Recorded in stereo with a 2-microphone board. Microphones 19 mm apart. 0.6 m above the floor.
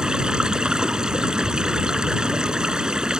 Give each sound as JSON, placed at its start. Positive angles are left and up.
{"t": 0.0, "sound": "running water", "side_deg": -40}